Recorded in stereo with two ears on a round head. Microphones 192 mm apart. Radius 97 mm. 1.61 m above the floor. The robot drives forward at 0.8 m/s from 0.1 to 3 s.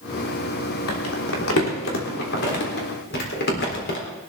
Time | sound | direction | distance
0.9 | crumpling | 80° left | 3 m